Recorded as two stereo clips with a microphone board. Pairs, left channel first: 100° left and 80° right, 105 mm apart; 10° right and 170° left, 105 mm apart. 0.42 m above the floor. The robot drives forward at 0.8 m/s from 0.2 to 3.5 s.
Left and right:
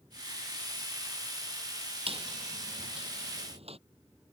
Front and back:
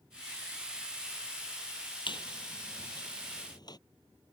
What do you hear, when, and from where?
2.1 s a squeak: 55° right; by 3.8 s 60° right